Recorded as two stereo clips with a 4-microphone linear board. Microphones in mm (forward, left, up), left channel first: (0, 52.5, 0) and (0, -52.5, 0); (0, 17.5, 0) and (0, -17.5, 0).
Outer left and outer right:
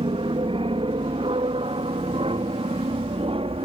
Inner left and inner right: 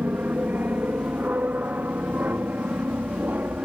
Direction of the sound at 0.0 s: 60° right (ahead or behind).